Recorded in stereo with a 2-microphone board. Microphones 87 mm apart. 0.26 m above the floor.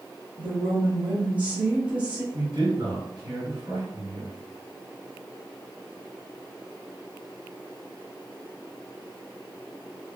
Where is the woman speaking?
20° right (ahead or behind), 1.3 m; by 2.2 s 15° right (ahead or behind), 1.5 m.